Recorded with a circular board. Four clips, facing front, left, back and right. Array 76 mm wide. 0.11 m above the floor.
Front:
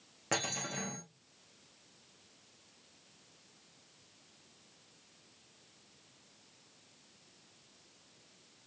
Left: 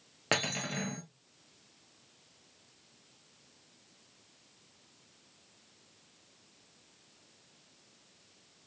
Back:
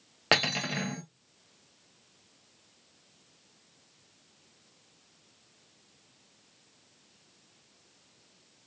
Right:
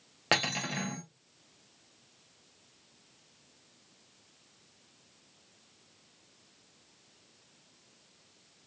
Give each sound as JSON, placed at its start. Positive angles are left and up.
{"t": 0.3, "sound": "cutlery clinking", "azimuth_deg": -170, "distance_m": 1.3}